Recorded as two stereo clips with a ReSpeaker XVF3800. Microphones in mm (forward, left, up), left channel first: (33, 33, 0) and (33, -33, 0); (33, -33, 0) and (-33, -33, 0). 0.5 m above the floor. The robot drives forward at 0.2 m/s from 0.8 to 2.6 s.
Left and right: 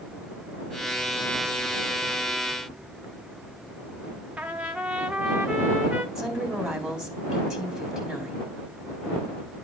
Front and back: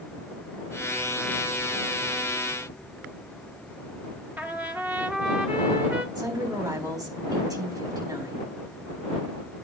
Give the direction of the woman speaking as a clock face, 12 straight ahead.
6 o'clock.